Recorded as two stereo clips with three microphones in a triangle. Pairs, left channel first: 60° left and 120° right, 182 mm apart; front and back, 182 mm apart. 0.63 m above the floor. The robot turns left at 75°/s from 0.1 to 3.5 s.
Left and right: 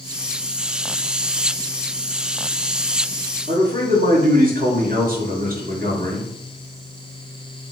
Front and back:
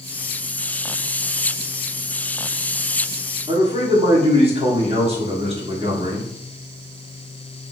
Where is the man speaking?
130° right, 1.3 m.